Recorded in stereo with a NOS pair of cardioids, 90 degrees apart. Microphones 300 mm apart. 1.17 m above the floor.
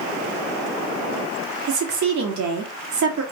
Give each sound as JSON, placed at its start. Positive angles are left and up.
{"t": 1.7, "sound": "a woman speaking", "azimuth_deg": -70, "distance_m": 1.7}